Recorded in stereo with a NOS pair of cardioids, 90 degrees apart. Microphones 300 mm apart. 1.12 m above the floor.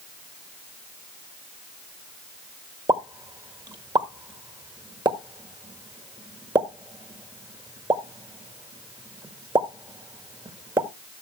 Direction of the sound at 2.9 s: 15° right.